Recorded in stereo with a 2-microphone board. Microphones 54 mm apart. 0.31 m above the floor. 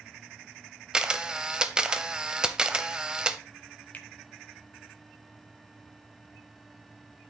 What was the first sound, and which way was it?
A camera shutter, 15° right (ahead or behind).